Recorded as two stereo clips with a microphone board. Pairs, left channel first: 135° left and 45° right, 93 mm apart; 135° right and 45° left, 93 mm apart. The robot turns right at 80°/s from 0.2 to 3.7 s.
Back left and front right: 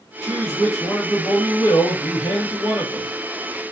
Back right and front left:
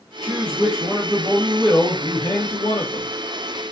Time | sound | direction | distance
0.2 | a man speaking | straight ahead | 1.6 m